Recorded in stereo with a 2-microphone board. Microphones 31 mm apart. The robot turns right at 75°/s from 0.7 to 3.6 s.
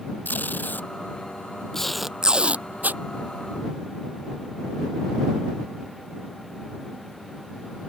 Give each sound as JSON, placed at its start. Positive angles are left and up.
{"t": 0.2, "sound": "tape being pulled", "side_deg": 85}